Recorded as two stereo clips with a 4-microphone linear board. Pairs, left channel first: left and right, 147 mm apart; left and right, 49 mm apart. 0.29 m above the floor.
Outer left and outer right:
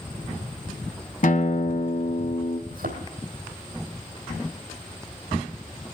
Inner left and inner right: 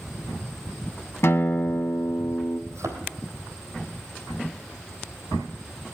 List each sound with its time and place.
1.2 s a guitar: 65° left (ahead or behind), 1.0 m
2.7 s a thud: 75° right (ahead or behind), 3 m